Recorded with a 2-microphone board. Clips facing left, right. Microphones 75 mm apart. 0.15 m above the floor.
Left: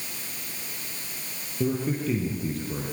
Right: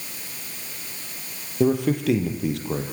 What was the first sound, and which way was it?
A man speaking, 70° right (ahead or behind).